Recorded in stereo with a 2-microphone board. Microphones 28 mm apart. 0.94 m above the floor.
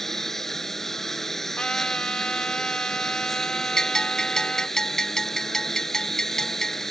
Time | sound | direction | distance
0.0 | a lawn mower | 15° left (ahead or behind) | ?
1.6 | a trumpet | 35° left (ahead or behind) | ?
3.8 | a bell | 20° left (ahead or behind) | ?